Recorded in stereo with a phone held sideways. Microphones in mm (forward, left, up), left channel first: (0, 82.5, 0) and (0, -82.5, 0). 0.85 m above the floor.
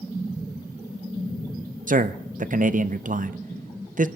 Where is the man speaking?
55° right (ahead or behind), 0.6 m.